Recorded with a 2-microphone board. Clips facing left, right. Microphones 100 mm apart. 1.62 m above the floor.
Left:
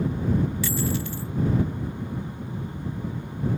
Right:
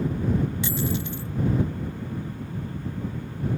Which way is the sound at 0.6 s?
20° right (ahead or behind).